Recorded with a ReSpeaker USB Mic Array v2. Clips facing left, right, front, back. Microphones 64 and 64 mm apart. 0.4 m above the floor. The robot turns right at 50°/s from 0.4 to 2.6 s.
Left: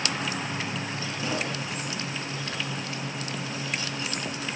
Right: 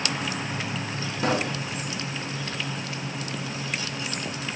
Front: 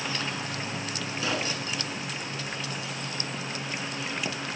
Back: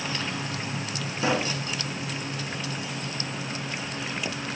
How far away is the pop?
About 1.6 m.